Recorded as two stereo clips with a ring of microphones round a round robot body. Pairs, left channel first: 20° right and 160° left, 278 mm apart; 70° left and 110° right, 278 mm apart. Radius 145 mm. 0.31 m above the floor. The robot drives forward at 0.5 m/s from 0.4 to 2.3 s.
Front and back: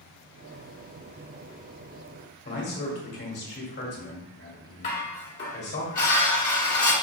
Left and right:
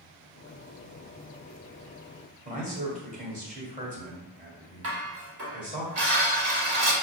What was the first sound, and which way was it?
A man speaking, 60° right.